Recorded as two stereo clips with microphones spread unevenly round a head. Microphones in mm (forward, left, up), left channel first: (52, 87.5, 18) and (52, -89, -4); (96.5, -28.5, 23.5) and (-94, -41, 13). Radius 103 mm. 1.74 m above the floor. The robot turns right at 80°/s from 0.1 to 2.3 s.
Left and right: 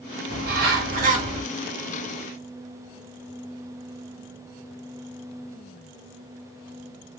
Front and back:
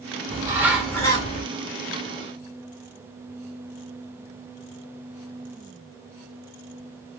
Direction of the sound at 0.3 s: 120° right.